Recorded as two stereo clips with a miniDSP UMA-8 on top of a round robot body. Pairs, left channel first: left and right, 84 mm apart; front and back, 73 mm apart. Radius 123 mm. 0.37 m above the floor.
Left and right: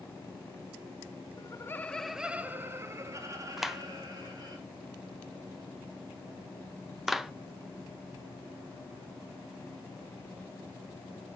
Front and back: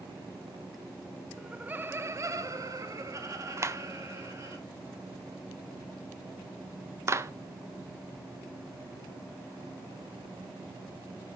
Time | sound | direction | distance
1.4 | laughter | 100° left | 1.0 m
3.6 | a clap | 175° right | 0.9 m